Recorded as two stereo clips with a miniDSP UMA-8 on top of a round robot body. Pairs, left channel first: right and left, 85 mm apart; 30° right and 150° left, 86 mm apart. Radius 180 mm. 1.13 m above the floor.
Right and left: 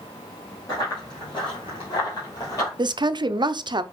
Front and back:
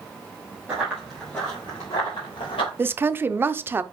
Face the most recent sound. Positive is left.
turn(degrees=90)